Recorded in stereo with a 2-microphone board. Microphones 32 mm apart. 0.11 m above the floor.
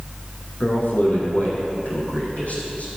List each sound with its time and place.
0.6 s a man speaking: 60° left (ahead or behind), 3.5 m; by 2.9 s 50° left (ahead or behind), 4.5 m